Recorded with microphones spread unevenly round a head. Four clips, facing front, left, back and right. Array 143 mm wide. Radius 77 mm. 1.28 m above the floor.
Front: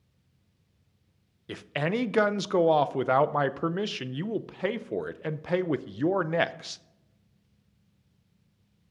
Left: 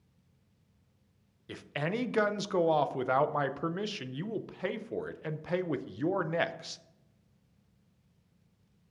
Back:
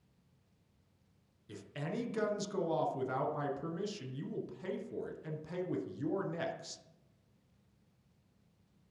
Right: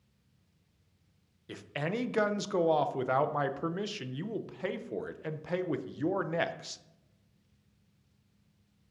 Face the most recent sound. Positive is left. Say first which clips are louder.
# left 1 dB, front 12 dB
turn(degrees=0)